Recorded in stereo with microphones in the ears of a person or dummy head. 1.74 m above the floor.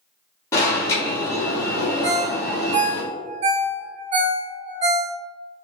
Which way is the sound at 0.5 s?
15° left (ahead or behind).